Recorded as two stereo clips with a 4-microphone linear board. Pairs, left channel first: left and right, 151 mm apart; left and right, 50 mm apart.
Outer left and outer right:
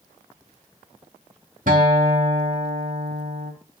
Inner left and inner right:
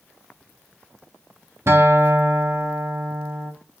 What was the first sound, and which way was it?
A guitar, 65° right (ahead or behind).